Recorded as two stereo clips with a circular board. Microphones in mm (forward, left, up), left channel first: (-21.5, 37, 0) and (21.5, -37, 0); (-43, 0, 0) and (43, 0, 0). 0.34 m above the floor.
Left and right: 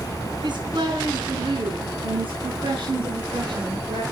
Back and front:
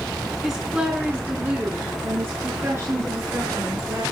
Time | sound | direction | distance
0.4 | a woman speaking | 85° right | 4.5 m